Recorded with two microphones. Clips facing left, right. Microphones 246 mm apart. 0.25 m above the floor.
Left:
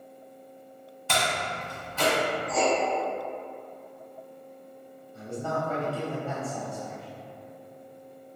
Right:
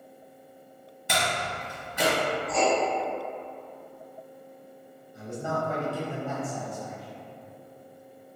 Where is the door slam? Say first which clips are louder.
Even; 15° right (ahead or behind), 1.2 m.